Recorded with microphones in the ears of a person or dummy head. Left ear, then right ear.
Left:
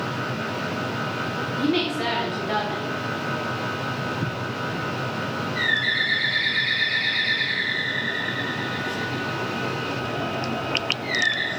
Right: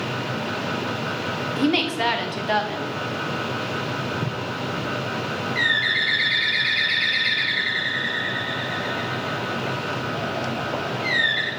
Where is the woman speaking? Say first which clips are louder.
Right 3 dB; 35° right (ahead or behind), 0.8 m.